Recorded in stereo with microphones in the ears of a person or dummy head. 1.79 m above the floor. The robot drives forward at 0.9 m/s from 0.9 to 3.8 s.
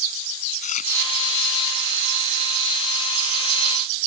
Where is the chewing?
40° left (ahead or behind).